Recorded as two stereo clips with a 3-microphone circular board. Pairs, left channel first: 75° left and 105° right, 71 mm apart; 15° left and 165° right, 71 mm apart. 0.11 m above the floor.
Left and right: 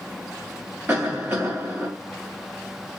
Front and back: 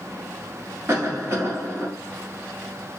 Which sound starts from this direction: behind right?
A cough, at 0.9 s.